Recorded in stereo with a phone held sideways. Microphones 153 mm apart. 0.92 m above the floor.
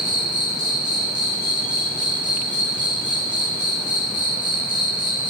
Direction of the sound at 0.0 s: 30° right (ahead or behind).